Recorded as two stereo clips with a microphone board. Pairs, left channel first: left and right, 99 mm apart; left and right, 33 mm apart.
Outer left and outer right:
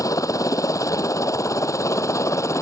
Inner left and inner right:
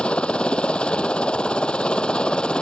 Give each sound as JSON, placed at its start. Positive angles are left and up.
{"t": 0.0, "sound": "a helicopter", "side_deg": 35}